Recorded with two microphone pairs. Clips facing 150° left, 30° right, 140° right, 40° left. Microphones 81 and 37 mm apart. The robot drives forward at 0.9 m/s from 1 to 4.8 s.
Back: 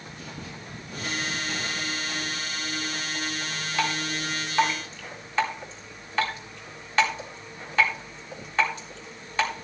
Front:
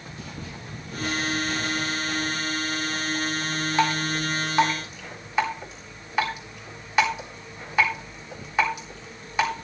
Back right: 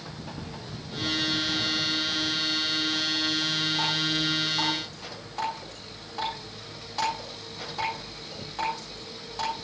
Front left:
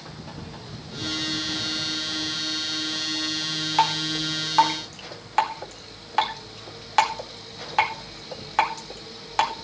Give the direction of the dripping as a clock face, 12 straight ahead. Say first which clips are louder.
Front 4 dB, front left 4 dB; 11 o'clock.